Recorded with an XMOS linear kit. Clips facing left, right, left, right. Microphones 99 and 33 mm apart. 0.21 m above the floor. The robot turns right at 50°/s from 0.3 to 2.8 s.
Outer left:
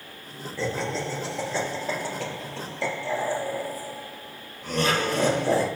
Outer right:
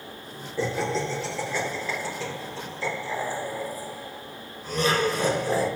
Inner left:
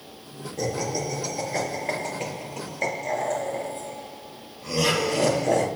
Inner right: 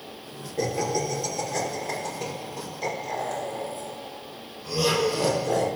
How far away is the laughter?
About 3.5 m.